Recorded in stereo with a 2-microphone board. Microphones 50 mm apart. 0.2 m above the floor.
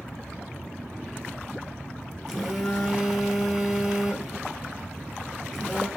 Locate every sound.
2.3 s a phone buzzing: centre (ahead or behind), 1.9 m